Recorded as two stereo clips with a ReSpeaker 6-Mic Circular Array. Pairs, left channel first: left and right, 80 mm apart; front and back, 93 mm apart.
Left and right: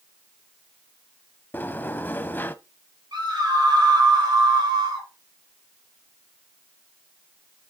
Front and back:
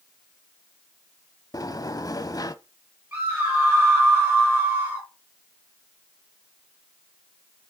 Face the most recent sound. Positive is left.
turn(degrees=-115)